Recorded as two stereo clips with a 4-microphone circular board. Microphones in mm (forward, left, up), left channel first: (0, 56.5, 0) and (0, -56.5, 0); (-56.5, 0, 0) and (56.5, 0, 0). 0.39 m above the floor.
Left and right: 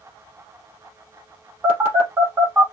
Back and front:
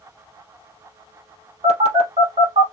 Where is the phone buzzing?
20° right, 3.5 m.